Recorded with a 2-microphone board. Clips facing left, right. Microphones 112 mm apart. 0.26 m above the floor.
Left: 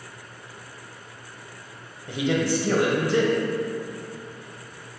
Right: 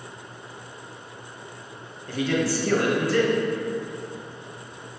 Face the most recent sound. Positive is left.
turn(degrees=20)  # may be behind; listen again after turning